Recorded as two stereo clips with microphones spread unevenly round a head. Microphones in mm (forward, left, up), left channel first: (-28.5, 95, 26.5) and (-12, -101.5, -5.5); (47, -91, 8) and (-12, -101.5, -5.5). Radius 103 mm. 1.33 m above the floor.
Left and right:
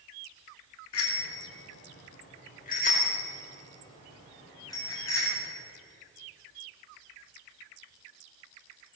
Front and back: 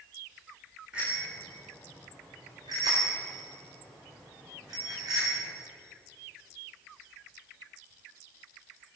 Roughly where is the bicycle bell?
Left.